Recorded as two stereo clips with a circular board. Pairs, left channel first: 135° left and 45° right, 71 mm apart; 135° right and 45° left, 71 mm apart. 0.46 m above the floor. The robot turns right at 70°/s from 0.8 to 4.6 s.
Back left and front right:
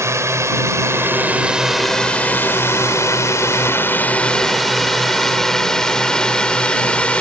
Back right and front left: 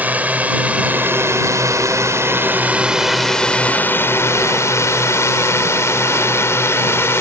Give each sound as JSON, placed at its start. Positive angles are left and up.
{"t": 0.0, "sound": "a drone", "azimuth_deg": -15}